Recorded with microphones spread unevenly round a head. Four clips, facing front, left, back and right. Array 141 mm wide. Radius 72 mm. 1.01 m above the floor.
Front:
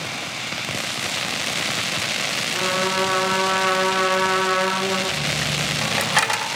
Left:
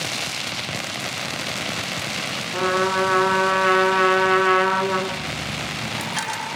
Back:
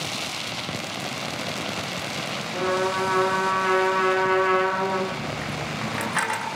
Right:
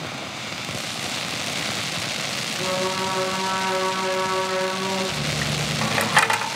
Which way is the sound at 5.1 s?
60° right.